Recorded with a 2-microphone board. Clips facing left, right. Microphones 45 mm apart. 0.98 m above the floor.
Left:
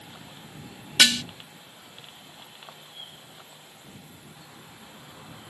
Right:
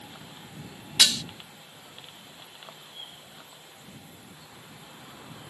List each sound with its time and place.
1.0 s dishes clattering: 70° left (ahead or behind)